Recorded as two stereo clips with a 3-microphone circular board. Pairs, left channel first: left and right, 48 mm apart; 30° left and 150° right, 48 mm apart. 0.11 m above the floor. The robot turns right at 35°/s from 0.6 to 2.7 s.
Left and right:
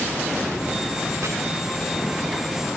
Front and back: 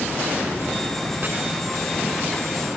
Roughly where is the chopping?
Right.